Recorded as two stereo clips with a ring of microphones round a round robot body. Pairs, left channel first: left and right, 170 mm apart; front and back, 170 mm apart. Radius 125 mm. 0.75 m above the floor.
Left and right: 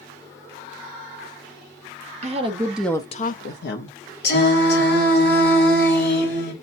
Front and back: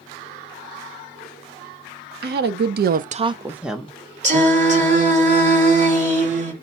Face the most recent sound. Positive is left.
turn(degrees=130)